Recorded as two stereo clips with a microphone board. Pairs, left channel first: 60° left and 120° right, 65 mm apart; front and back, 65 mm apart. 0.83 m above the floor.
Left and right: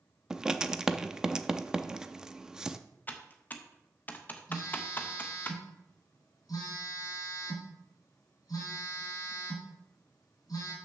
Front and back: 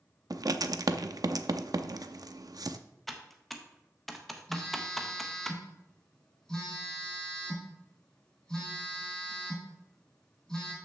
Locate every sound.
0.3 s writing: 160° left, 0.6 m
3.1 s typing on a keyboard: 85° left, 0.9 m
4.5 s a phone buzzing: 80° left, 3 m